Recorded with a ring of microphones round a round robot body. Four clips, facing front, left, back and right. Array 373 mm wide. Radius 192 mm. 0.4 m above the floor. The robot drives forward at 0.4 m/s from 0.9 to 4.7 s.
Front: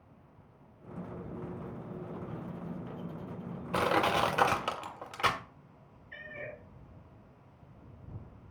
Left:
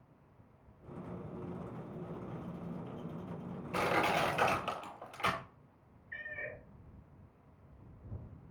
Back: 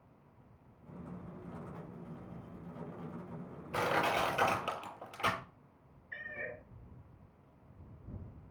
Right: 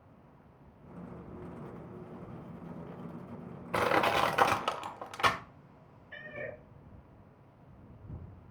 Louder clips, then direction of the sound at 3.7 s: Right 4 dB, front 4 dB; 50° right.